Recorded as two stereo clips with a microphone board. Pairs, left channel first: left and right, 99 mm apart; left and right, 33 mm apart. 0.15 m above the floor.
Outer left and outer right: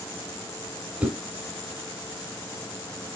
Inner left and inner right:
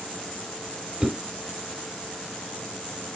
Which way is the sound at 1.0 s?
10° right (ahead or behind).